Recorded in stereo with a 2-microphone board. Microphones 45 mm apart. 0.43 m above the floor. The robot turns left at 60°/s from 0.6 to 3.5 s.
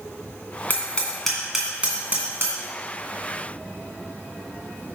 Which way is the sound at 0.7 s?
40° left (ahead or behind).